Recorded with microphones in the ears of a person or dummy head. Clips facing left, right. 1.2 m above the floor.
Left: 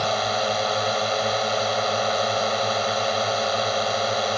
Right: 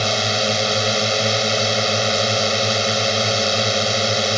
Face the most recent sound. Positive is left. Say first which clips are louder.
# right 2 dB
turn(degrees=-35)  # may be behind; listen again after turning